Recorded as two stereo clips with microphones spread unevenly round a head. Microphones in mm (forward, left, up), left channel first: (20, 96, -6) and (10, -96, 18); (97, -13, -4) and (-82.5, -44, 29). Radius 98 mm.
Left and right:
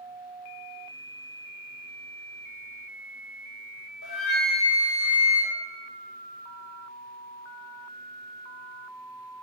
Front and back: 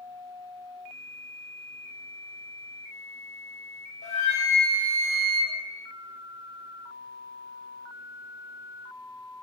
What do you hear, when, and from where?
4.0 s a flute: 70° left, 1.0 m